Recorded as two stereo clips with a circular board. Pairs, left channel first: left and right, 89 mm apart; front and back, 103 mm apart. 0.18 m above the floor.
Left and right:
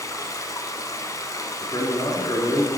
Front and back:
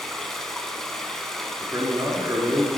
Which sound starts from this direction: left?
Running water, at 0.0 s.